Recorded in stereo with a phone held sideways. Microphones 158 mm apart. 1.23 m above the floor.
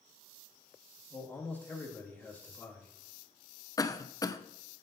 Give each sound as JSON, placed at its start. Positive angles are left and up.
{"t": 1.1, "sound": "a man speaking", "side_deg": 10, "distance_m": 1.9}
{"t": 3.8, "sound": "a cough", "side_deg": 25, "distance_m": 0.6}